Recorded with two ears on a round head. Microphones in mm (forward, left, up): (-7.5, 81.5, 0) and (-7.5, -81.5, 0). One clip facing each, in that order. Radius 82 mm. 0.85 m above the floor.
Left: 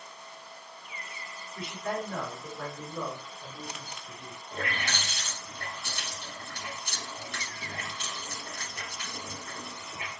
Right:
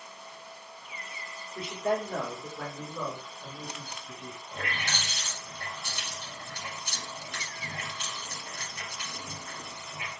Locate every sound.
1.6 s a man speaking: 25° right (ahead or behind), 1.0 m; by 4.4 s 25° left (ahead or behind), 1.6 m
4.5 s a running tap: 80° left, 1.3 m